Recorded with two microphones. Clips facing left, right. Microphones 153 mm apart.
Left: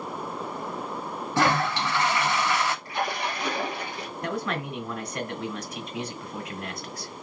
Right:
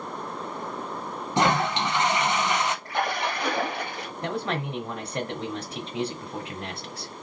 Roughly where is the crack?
No crack in this recording.